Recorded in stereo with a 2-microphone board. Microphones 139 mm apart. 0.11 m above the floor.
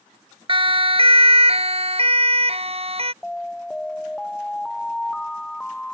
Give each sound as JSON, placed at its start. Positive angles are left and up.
{"t": 0.5, "sound": "a siren", "side_deg": -40}
{"t": 3.2, "sound": "an alarm", "side_deg": 5}